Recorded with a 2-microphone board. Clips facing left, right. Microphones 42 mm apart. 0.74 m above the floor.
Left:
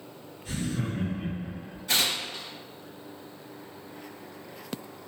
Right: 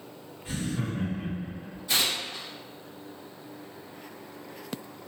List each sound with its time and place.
0.5 s laughter: 20° right (ahead or behind), 0.8 m; by 1.8 s 40° left (ahead or behind), 1.0 m
1.9 s tearing paper: 60° left (ahead or behind), 1.0 m